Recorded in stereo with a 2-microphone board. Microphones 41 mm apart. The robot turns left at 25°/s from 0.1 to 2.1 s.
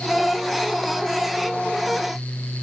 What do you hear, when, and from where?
Only background noise.